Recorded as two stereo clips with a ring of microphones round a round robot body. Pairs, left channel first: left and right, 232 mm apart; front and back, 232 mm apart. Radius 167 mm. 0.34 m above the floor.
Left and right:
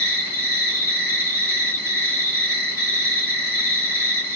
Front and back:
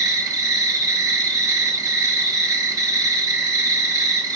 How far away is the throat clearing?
I don't hear throat clearing.